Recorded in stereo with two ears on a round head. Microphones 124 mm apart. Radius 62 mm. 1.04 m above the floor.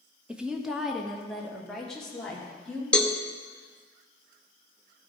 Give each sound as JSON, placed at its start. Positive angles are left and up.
{"t": 0.3, "sound": "a woman speaking", "side_deg": -10, "distance_m": 1.0}
{"t": 2.9, "sound": "a cowbell", "side_deg": 5, "distance_m": 0.8}